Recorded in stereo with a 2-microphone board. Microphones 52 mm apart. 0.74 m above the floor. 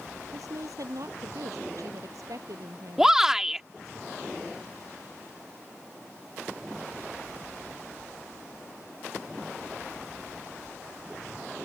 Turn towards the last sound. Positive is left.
turn(degrees=-10)  # may be behind; listen again after turning